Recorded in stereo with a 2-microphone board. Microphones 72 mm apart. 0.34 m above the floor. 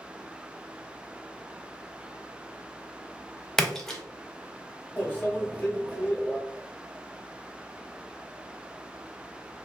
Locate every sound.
3.6 s a splash: 5° left (ahead or behind), 0.6 m
5.0 s a microwave: 20° left (ahead or behind), 0.7 m